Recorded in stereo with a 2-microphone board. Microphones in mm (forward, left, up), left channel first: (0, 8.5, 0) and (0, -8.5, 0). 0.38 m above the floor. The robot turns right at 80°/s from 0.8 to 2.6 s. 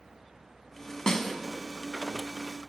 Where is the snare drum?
40° left (ahead or behind), 0.9 m; by 1.4 s 15° left (ahead or behind), 0.9 m.